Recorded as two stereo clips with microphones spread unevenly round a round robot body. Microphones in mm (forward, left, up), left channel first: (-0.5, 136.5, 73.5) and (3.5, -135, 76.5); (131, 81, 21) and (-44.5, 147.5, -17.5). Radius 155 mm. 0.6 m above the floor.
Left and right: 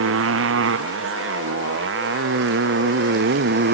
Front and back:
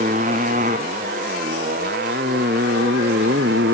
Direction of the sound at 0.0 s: 135° right.